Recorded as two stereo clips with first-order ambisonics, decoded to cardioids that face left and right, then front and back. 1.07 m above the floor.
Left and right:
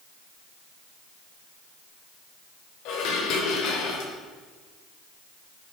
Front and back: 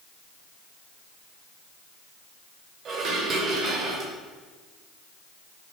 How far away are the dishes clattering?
About 2.5 m.